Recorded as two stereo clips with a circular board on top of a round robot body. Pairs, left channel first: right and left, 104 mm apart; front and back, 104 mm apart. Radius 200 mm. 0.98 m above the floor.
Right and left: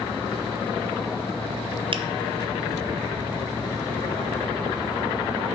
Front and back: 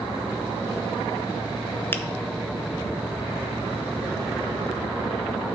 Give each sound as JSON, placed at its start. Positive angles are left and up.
{"t": 1.9, "sound": "a finger snap", "azimuth_deg": 70, "distance_m": 0.9}